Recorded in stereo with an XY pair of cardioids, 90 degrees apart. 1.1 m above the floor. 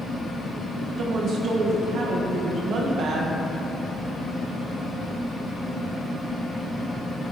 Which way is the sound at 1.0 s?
70° right.